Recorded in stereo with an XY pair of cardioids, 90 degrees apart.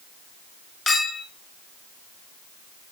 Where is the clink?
45° left, 3 m.